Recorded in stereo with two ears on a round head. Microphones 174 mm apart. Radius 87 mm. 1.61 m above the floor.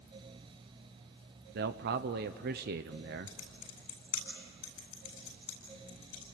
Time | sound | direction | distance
1.6 | a man speaking | 55° right (ahead or behind) | 0.8 m
3.3 | typing on a keyboard | 85° left | 8.5 m